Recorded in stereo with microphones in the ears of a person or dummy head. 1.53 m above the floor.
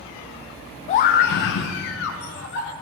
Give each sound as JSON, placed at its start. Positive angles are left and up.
{"t": 0.9, "sound": "a scream", "side_deg": 35, "distance_m": 0.8}